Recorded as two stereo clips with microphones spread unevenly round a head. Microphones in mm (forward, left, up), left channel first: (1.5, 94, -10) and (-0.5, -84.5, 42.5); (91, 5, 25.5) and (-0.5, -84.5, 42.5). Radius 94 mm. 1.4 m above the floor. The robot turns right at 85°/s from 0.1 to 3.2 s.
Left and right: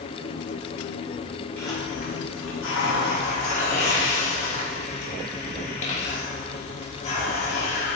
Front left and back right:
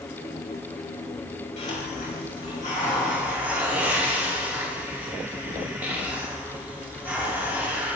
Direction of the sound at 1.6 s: 5° left.